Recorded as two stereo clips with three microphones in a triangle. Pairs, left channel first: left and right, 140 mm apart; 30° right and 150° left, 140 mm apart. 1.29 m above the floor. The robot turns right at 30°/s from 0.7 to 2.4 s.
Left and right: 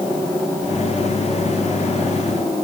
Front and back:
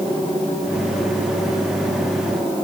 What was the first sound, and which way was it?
Only background noise.